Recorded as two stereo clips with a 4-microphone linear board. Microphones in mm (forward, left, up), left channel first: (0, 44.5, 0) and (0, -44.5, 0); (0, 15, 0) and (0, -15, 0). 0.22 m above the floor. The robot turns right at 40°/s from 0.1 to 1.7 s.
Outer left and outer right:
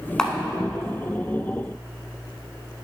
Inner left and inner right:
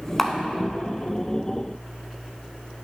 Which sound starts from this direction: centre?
A camera shutter, at 0.2 s.